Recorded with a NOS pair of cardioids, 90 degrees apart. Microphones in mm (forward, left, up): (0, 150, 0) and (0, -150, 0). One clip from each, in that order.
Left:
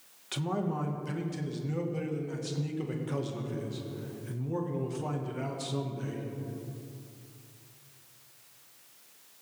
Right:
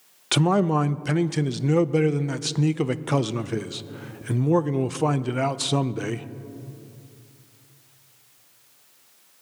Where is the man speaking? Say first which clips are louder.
Right 13 dB; 60° right, 0.5 m.